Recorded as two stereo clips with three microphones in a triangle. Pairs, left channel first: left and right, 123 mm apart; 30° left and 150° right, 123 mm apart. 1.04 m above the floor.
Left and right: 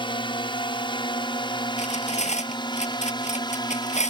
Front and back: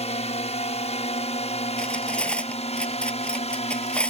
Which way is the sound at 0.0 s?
50° left.